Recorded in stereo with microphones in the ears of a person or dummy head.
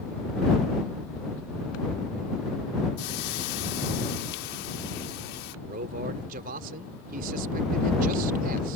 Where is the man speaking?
55° right (ahead or behind).